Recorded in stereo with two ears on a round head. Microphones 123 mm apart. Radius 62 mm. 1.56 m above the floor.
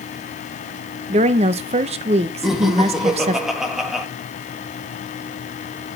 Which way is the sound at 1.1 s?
50° right (ahead or behind).